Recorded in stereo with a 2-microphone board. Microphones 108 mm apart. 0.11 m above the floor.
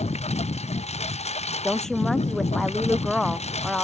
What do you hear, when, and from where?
0.0 s a lawn mower: 90° left
1.6 s a woman speaking: 5° left (ahead or behind)